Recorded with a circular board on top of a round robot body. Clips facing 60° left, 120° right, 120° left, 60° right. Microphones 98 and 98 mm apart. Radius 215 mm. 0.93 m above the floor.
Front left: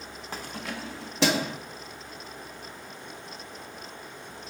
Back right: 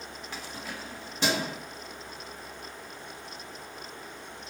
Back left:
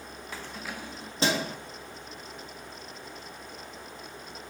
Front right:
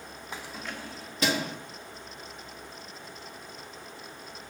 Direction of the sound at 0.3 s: 10° left.